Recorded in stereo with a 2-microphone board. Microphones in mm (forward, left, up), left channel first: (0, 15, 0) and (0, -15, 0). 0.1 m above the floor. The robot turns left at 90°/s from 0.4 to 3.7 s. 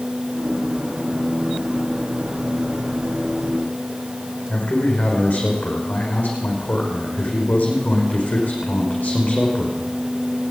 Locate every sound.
4.5 s a man speaking: 75° left (ahead or behind), 5 m